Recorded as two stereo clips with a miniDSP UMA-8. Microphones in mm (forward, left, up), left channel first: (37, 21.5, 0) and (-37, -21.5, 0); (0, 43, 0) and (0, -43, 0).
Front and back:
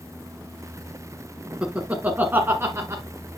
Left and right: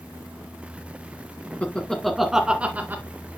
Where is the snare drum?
I don't hear a snare drum.